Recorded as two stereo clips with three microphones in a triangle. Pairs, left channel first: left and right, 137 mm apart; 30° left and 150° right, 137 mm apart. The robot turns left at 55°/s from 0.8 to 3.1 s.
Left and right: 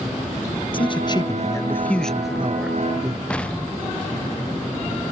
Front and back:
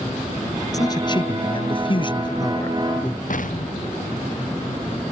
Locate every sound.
0.7 s a man speaking: 75° left; by 3.2 s 50° right
3.3 s an explosion: 10° left